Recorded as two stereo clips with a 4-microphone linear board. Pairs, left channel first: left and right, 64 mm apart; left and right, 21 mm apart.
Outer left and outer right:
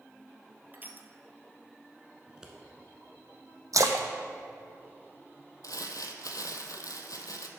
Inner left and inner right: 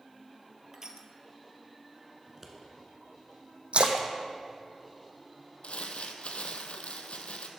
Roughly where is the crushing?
Right.